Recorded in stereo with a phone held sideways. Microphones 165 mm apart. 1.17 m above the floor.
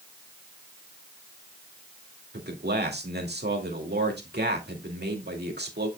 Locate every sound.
2.3 s a man speaking: 80° right, 2.5 m